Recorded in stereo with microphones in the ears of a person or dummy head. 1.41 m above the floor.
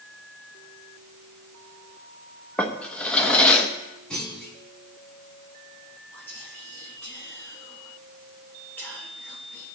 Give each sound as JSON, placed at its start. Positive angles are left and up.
{"t": 2.6, "sound": "a drawer", "side_deg": 5, "distance_m": 0.9}
{"t": 4.1, "sound": "a clunk", "side_deg": 5, "distance_m": 3.5}
{"t": 6.1, "sound": "whispering", "side_deg": 10, "distance_m": 5.0}